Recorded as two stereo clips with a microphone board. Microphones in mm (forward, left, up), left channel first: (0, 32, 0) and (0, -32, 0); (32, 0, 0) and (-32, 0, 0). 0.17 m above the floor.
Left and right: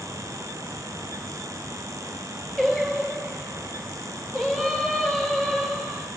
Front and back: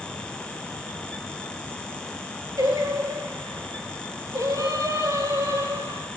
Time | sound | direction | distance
2.6 | singing | 175° left | 4.5 m